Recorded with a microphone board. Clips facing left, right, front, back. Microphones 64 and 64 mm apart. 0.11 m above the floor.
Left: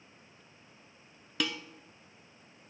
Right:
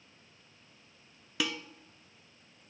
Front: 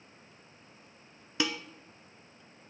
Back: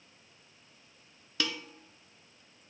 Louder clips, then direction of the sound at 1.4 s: Even, front 3 dB; 15° right.